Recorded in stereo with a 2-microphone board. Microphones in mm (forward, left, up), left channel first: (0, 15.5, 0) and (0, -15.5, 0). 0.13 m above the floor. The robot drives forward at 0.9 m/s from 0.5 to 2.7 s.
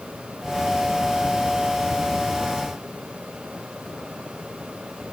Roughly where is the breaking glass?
No breaking glass in this recording.